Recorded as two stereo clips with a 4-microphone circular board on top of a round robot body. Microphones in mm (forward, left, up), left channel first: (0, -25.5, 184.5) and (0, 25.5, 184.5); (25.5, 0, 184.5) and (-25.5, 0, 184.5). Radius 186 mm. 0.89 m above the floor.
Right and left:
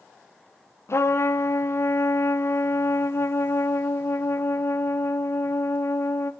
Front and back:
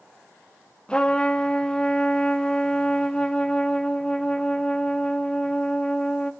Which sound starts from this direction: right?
A trumpet, at 0.9 s.